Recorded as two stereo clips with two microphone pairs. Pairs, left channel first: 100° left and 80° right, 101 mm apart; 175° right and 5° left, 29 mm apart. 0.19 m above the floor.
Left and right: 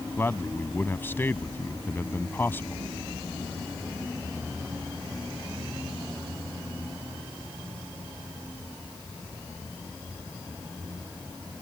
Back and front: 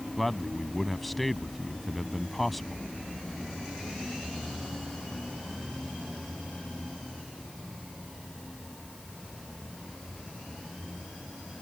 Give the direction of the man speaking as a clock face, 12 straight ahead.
8 o'clock.